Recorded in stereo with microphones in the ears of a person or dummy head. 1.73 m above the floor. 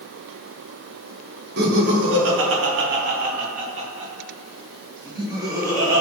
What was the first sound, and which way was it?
Laughter, 60° right (ahead or behind).